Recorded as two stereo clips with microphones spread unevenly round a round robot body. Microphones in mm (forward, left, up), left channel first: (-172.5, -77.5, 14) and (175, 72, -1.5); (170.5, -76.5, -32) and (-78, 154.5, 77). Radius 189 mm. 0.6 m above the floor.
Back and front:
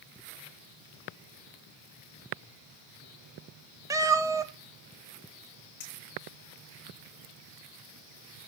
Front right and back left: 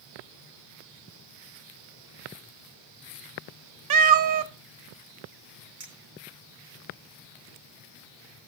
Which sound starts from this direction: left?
A cat meowing, at 3.9 s.